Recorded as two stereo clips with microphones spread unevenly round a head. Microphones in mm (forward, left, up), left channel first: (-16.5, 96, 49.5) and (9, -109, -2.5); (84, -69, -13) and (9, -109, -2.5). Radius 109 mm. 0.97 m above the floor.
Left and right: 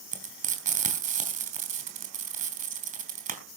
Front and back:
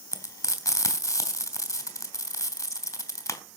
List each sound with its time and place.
0.1 s frying: 25° right, 3.5 m